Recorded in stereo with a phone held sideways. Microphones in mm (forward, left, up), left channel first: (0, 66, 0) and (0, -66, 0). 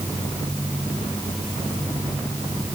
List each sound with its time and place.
Only background noise.